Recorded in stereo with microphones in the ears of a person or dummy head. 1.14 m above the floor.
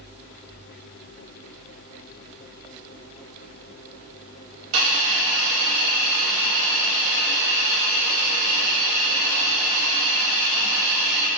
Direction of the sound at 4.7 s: 30° right (ahead or behind).